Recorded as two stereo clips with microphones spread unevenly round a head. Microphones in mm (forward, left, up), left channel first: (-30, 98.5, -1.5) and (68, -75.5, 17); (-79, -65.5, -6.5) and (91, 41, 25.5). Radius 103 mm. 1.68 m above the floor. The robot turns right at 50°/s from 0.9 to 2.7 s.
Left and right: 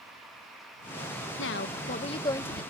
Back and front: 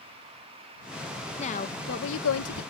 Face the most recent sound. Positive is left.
turn(degrees=-145)